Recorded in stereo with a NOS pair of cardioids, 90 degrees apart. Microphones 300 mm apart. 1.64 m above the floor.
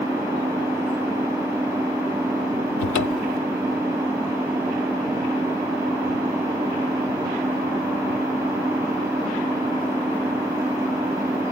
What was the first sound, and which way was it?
An engine running, 10° right.